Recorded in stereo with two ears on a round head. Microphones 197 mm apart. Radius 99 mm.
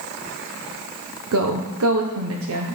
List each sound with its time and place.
1.3 s a woman speaking: 70° right (ahead or behind), 0.7 m